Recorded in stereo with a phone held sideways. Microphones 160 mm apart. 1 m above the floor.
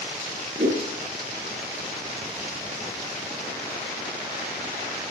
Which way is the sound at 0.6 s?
85° right.